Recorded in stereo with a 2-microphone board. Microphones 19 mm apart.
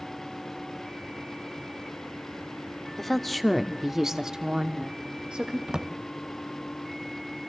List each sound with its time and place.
3.0 s a woman speaking: 15° left (ahead or behind), 1.3 m; by 5.6 s 65° right (ahead or behind), 1.5 m
5.7 s a drawer: 45° right (ahead or behind), 0.6 m